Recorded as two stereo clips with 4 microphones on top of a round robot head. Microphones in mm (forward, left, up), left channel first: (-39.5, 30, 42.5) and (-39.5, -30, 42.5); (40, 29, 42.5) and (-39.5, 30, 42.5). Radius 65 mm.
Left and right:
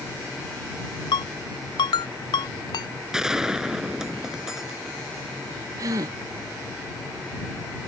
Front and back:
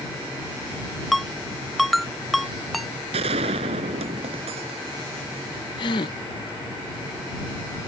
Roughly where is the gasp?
Ahead right.